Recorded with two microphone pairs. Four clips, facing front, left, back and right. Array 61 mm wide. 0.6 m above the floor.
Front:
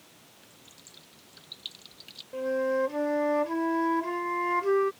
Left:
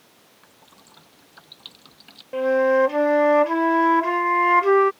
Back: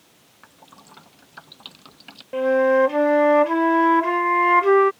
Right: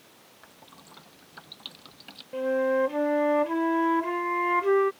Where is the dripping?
175° right.